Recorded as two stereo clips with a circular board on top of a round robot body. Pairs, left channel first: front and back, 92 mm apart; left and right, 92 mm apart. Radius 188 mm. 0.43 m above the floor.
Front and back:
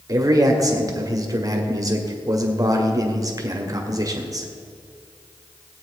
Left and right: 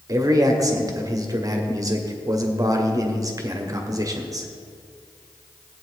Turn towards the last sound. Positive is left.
turn(degrees=-135)